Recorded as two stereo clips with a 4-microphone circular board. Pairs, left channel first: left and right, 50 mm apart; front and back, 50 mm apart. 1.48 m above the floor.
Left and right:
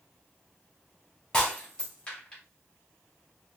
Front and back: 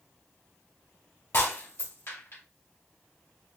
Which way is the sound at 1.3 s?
15° left.